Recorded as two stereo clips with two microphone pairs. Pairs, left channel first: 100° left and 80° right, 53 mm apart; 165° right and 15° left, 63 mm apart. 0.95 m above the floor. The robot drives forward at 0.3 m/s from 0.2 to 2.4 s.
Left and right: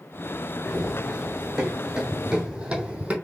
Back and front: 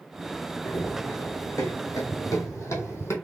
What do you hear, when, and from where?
0.7 s running footsteps: 170° right, 2.5 m; by 3.1 s 140° right, 1.5 m